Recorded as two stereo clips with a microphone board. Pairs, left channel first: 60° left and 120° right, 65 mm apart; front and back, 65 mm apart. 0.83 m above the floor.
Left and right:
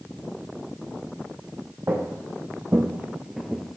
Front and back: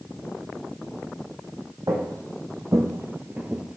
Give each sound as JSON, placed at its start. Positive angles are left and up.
{"t": 1.9, "sound": "footsteps", "azimuth_deg": -165, "distance_m": 1.9}